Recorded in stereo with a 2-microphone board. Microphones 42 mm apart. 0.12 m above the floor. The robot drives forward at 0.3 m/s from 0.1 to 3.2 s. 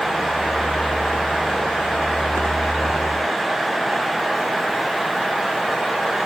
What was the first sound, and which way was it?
Only background noise.